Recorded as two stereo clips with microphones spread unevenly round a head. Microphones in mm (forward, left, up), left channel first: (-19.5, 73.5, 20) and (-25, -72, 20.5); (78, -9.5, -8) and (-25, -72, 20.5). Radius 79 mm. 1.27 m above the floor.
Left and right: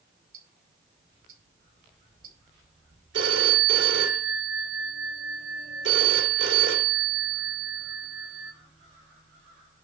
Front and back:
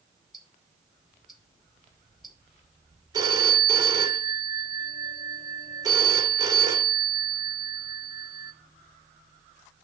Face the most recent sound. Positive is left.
turn(degrees=-95)